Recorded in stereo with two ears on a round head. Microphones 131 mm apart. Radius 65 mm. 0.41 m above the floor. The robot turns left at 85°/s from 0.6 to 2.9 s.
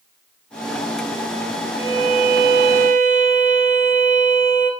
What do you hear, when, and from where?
1.8 s a violin: 20° right, 0.6 m; by 4.7 s 115° right, 0.6 m